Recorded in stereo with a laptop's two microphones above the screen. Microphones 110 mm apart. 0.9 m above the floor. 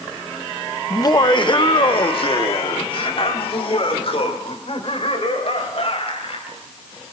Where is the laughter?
30° left (ahead or behind), 0.9 m; by 6.6 s 60° left (ahead or behind), 5.5 m.